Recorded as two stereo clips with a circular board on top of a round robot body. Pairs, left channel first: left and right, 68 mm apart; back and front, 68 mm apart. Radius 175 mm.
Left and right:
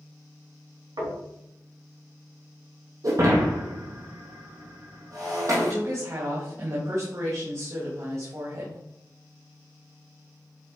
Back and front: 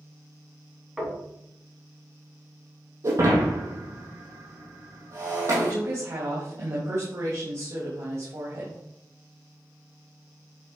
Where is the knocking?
85° right, 4 m.